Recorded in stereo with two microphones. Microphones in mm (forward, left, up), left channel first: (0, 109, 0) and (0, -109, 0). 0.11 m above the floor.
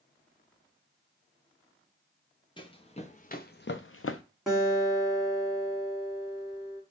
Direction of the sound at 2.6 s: 20° left (ahead or behind).